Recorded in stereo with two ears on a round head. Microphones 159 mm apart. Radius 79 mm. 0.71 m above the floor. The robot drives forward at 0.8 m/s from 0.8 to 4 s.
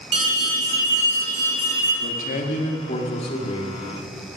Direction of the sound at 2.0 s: 50° left (ahead or behind).